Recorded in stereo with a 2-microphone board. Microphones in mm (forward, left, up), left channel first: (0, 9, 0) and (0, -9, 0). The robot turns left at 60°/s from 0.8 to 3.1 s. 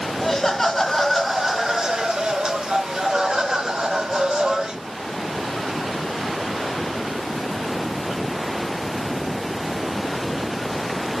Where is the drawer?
No drawer in this recording.